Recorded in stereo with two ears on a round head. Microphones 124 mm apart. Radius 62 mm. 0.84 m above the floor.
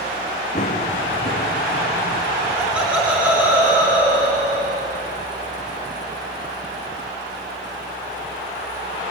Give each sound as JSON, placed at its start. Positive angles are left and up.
{"t": 0.6, "sound": "running footsteps", "side_deg": 55, "distance_m": 3.0}
{"t": 2.5, "sound": "laughter", "side_deg": -10, "distance_m": 3.5}